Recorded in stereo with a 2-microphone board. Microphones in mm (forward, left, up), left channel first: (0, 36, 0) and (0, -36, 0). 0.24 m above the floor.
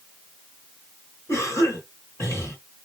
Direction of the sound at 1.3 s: 35° left (ahead or behind).